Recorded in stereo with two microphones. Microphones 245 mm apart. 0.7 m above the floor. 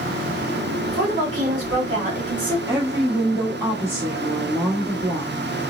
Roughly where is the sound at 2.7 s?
Centre.